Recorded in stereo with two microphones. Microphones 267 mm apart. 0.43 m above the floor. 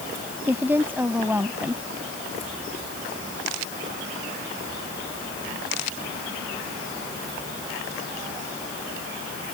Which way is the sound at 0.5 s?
5° right (ahead or behind).